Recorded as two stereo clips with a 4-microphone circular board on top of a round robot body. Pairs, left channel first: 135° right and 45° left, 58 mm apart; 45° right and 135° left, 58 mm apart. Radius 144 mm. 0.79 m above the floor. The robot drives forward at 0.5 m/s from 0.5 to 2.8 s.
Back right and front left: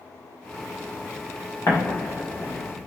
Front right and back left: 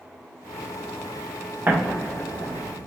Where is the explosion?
170° right, 1.3 m; by 2.8 s 175° right, 1.7 m.